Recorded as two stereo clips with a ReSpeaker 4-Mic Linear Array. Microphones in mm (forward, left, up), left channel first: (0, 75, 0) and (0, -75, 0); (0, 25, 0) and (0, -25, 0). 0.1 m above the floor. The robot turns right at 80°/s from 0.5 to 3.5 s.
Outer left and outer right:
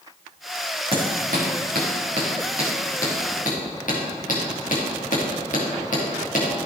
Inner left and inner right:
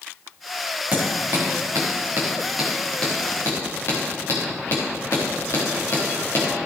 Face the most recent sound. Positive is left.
turn(degrees=60)  # may be behind; listen again after turning